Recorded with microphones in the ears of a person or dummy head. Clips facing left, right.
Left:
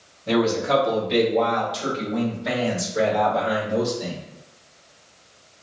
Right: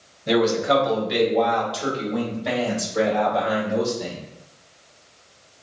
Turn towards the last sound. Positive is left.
turn(degrees=10)  # may be behind; listen again after turning